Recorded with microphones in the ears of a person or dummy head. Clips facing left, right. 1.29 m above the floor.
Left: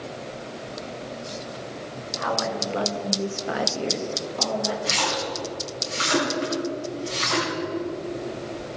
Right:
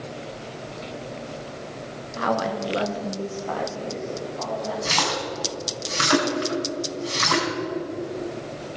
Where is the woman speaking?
60° right (ahead or behind), 1.6 m; by 4.8 s 55° left (ahead or behind), 2 m.